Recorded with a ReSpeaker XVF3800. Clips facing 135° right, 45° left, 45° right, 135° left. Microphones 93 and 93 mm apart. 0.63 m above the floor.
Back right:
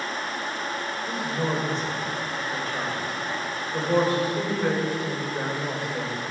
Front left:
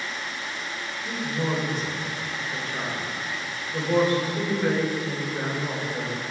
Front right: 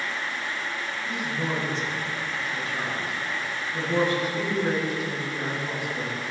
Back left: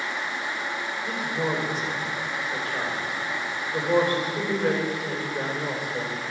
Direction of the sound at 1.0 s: 130° left.